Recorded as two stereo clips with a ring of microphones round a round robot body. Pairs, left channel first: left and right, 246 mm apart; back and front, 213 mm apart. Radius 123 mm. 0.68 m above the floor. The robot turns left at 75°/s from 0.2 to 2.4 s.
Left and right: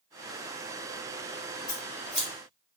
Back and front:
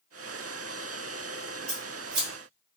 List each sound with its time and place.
1.7 s scissors: 35° left, 0.9 m; by 2.3 s 10° right, 0.9 m